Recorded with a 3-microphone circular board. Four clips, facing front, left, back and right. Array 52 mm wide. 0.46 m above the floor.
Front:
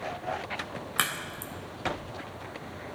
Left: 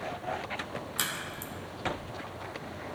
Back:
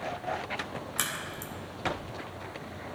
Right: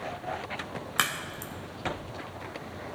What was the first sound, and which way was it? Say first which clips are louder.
A crack: right 8 dB, front 6 dB; 55° right.